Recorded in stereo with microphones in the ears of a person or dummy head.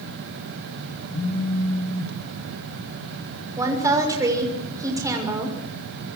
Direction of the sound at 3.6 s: 20° right (ahead or behind).